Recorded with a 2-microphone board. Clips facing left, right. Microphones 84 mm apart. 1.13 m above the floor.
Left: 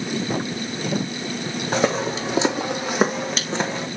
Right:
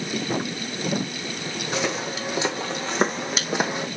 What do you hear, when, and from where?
1.7 s footsteps: 35° left (ahead or behind), 3 m; by 3.9 s 20° right (ahead or behind), 2.5 m